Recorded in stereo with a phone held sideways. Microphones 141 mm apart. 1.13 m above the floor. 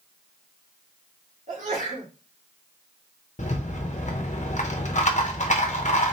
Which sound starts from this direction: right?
A sneeze, at 1.5 s.